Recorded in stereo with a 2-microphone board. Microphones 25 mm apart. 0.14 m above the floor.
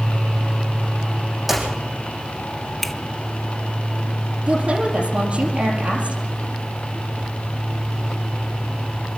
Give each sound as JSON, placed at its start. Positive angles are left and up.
{"t": 1.5, "sound": "a clap", "side_deg": -10, "distance_m": 5.0}
{"t": 2.8, "sound": "a finger snap", "side_deg": 5, "distance_m": 0.9}
{"t": 4.5, "sound": "a woman speaking", "side_deg": -50, "distance_m": 5.0}